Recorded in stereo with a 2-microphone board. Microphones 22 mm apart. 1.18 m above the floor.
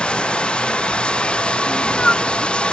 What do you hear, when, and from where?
0.0 s running water: 50° left (ahead or behind)
1.7 s a cat meowing: 45° left (ahead or behind)